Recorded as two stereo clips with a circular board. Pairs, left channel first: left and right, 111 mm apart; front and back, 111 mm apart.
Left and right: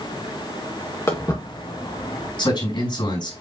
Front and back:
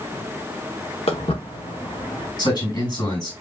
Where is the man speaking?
45° left, 4 m.